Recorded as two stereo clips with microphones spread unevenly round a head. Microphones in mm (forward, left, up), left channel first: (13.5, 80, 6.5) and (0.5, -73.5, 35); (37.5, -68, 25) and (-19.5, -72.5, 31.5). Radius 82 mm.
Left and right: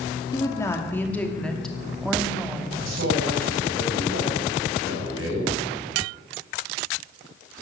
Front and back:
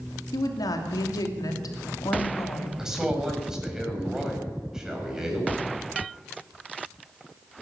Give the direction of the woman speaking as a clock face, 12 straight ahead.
11 o'clock.